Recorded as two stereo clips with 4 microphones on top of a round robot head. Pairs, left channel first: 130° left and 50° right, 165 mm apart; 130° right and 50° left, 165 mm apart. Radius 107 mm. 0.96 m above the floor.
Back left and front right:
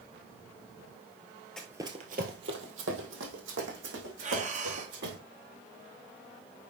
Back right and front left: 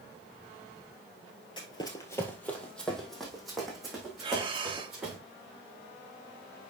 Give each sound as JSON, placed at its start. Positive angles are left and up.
{"t": 1.6, "sound": "running footsteps", "azimuth_deg": -145, "distance_m": 1.0}
{"t": 4.2, "sound": "breathing", "azimuth_deg": -10, "distance_m": 1.5}